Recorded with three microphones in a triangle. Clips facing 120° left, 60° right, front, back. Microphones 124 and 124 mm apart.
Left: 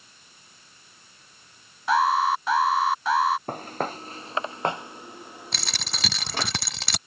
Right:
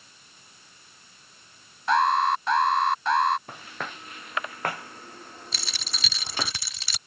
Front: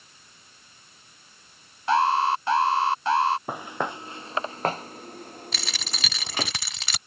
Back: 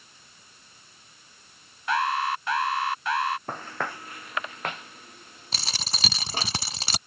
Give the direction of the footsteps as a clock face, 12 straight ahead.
9 o'clock.